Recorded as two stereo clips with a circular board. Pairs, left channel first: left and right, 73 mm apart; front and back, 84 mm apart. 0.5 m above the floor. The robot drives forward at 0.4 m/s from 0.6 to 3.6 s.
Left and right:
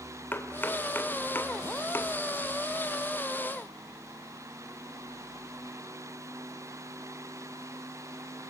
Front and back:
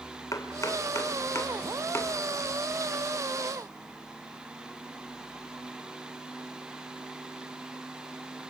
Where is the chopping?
35° left, 2 m; by 2.1 s 50° left, 1.7 m.